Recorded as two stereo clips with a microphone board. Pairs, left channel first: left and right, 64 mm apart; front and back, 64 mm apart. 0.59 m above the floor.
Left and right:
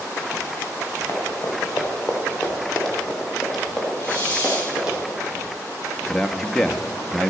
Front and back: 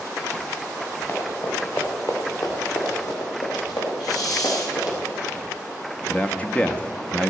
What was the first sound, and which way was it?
Running footsteps, 40° left.